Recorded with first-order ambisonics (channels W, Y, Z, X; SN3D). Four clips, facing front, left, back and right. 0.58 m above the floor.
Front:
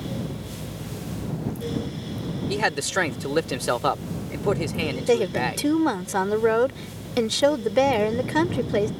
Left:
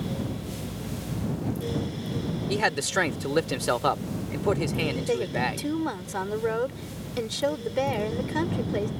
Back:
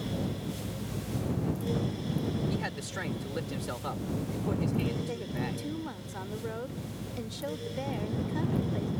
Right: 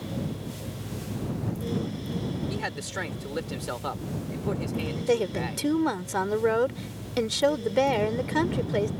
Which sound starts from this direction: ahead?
A woman speaking, at 5.1 s.